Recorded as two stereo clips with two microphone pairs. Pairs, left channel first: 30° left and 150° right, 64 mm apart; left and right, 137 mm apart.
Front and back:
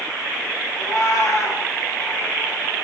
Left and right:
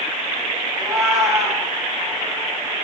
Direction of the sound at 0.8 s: Straight ahead.